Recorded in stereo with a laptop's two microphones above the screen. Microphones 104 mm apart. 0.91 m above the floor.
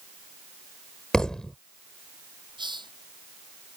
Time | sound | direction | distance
1.1 | a thud | 5° left (ahead or behind) | ?
2.6 | a hiss | 50° right (ahead or behind) | ?